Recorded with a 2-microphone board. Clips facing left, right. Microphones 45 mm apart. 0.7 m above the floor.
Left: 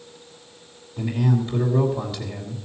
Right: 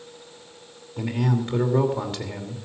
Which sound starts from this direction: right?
A man speaking, at 1.0 s.